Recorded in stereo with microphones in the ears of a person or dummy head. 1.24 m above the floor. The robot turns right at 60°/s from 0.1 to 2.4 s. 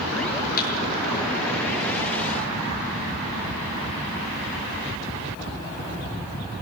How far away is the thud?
About 8.5 m.